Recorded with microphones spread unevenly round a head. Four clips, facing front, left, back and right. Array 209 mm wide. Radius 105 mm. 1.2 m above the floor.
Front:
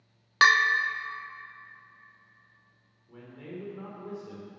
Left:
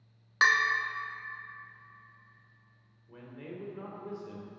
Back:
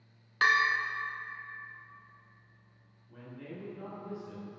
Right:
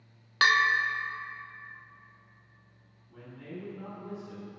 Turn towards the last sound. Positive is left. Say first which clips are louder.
# even, front 3 dB
turn(degrees=35)